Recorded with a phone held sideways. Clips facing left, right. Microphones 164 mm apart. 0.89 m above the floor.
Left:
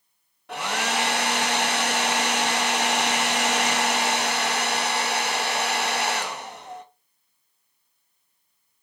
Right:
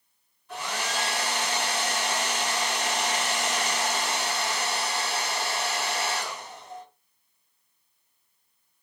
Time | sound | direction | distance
0.5 | a hair dryer | 70° left (ahead or behind) | 0.9 m